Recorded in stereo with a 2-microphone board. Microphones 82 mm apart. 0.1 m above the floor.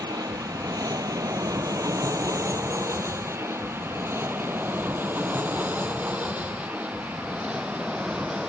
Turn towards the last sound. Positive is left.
turn(degrees=-10)  # may be behind; listen again after turning